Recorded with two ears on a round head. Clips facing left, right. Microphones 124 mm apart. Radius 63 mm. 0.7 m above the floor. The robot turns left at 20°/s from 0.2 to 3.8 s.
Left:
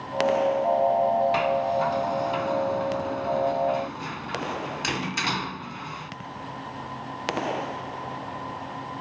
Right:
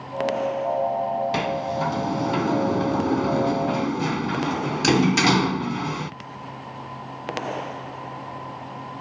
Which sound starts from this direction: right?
A sliding door, at 1.3 s.